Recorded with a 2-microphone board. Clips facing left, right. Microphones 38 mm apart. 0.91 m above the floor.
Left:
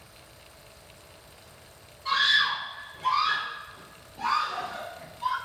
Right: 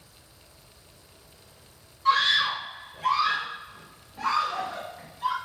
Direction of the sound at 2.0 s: 60° right (ahead or behind).